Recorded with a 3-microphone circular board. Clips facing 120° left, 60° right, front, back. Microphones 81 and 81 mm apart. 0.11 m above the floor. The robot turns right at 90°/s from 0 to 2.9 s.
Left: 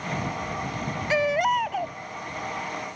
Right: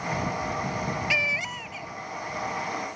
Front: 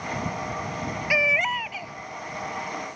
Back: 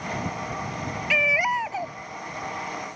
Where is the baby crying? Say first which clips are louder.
Left 8 dB, back 1 dB; 70° left; by 1.9 s 150° left.